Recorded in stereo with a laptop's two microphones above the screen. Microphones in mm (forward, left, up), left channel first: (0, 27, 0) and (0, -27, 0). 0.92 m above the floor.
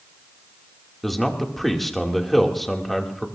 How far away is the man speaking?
About 2.5 m.